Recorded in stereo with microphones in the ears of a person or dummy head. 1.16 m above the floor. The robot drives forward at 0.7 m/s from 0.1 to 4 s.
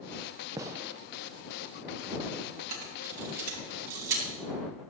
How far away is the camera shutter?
About 4.5 m.